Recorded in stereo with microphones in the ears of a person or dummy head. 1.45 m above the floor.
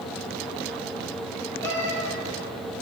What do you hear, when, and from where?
1.6 s a cat meowing: 15° left (ahead or behind), 2 m